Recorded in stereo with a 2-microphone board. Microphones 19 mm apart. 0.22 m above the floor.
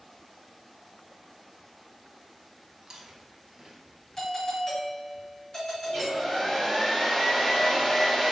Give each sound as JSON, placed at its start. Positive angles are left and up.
{"t": 2.8, "sound": "chewing", "side_deg": -30, "distance_m": 0.6}
{"t": 4.2, "sound": "a doorbell", "side_deg": 25, "distance_m": 1.7}
{"t": 5.8, "sound": "a hair dryer", "side_deg": 20, "distance_m": 1.1}